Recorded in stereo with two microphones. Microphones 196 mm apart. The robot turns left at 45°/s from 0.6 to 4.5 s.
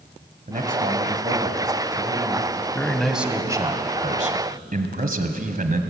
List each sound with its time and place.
0.5 s a man speaking: 105° right, 2 m; by 2.6 s 165° left, 2 m
2.8 s a man speaking: 15° left, 1.9 m; by 5.8 s 65° right, 1.9 m